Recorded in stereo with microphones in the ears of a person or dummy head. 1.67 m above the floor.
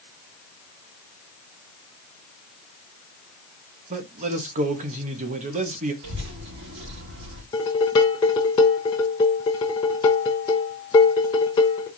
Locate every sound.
3.9 s a man speaking: 40° right (ahead or behind), 1.0 m
6.0 s a child speaking: 65° right (ahead or behind), 2.5 m
7.5 s dishes clattering: 15° left (ahead or behind), 0.6 m